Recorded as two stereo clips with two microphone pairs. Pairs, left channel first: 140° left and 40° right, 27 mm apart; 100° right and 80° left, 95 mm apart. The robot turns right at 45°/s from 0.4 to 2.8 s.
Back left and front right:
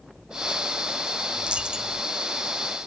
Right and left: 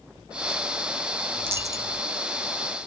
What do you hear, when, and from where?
1.4 s a dropped coin: 10° left, 0.9 m; by 2.0 s 40° left, 0.9 m